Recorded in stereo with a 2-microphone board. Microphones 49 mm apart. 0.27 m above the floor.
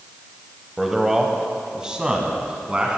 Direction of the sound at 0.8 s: 5° right (ahead or behind).